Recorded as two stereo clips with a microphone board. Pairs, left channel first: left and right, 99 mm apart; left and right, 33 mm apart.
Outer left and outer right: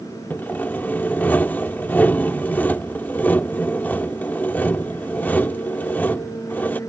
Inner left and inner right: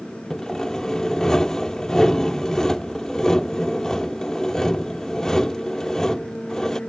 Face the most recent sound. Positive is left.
turn(degrees=20)  # may be behind; listen again after turning